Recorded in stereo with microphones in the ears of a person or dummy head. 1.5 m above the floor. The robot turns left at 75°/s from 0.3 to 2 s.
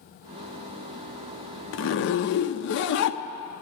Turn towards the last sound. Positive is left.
turn(degrees=70)  # may be behind; listen again after turning